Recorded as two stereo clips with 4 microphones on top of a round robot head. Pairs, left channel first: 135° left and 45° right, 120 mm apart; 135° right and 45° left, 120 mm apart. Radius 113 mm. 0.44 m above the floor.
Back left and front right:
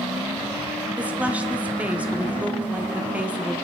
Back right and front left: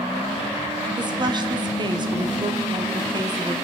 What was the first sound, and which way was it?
A woman speaking, 25° left.